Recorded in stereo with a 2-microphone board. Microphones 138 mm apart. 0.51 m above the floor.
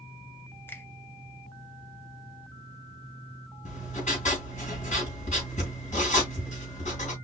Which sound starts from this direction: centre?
A finger snap, at 0.7 s.